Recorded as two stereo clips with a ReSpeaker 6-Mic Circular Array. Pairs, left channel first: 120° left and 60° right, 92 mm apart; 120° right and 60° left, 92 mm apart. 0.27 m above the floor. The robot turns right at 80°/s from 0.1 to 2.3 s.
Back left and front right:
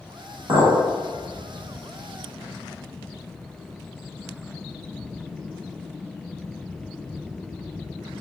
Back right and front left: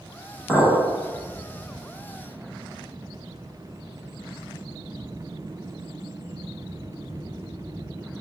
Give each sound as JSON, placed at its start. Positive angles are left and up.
{"t": 0.5, "sound": "a clink", "azimuth_deg": -25, "distance_m": 1.4}